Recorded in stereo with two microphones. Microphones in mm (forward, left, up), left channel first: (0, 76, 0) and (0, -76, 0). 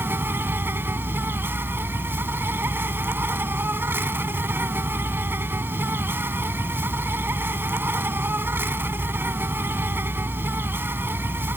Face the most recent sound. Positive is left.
turn(degrees=-15)  # may be behind; listen again after turning